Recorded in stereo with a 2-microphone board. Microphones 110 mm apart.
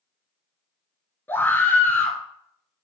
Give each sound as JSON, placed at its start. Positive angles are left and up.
{"t": 1.3, "sound": "a scream", "side_deg": 20, "distance_m": 1.5}